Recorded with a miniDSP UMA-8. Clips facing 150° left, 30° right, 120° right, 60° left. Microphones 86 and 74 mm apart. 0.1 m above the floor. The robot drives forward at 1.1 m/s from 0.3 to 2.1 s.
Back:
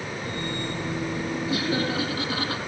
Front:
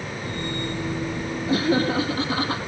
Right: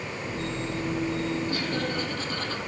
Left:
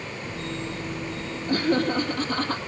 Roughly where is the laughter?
Ahead.